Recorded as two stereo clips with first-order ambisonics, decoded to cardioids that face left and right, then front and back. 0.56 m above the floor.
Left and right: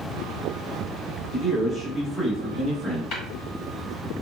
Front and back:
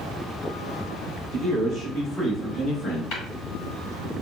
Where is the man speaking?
175° left, 1.5 m; by 3.0 s 50° left, 1.3 m.